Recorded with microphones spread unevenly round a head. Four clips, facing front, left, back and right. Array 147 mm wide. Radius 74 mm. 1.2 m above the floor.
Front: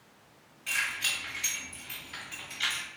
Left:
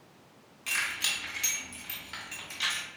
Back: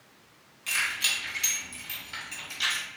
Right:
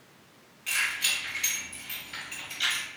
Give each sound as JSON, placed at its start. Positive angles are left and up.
{"t": 0.7, "sound": "keys jangling", "azimuth_deg": 115, "distance_m": 1.8}